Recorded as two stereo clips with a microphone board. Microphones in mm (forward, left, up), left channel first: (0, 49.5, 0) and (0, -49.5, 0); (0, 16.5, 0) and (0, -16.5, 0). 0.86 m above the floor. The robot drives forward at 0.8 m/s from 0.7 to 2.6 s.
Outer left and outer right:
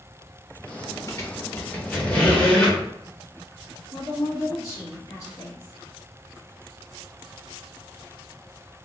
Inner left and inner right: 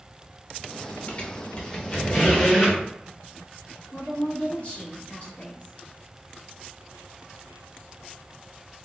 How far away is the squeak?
About 0.7 m.